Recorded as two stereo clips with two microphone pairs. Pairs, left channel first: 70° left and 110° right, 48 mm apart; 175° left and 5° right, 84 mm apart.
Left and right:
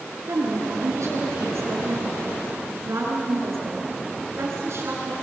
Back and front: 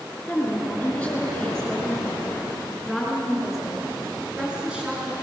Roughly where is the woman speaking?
Right.